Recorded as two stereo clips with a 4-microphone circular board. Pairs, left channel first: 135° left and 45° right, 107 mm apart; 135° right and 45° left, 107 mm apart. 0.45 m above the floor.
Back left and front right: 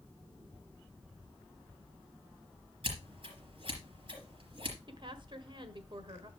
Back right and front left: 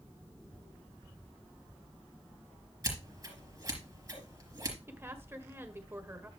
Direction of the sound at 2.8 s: 10° right.